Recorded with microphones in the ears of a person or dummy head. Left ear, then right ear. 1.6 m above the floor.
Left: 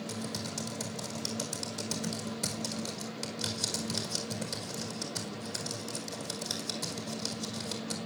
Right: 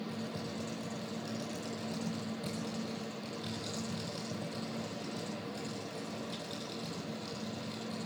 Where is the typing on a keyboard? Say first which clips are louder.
Left 3 dB; 70° left (ahead or behind), 5 m.